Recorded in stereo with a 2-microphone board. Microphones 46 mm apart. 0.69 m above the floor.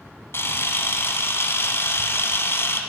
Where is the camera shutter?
55° left (ahead or behind), 1.3 m.